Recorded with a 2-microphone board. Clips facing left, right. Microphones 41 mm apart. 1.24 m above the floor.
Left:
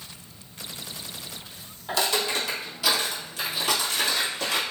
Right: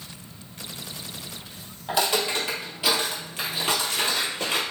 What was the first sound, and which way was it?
Footsteps, 20° right (ahead or behind).